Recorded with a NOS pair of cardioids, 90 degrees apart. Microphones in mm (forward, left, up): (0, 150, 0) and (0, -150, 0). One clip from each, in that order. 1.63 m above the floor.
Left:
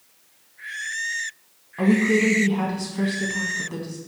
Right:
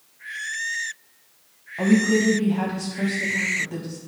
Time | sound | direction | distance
1.8 | a woman speaking | 5° left | 0.9 m